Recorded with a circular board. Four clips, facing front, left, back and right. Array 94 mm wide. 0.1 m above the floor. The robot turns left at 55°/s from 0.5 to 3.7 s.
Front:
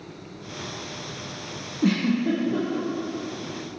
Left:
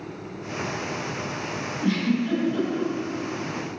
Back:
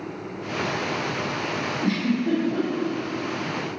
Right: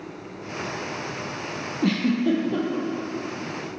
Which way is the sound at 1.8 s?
50° right.